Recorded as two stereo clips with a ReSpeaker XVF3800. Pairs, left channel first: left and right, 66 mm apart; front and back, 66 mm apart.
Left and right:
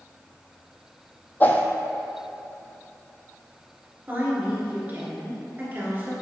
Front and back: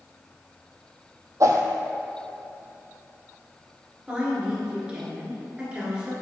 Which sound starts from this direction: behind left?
A whoosh, at 1.4 s.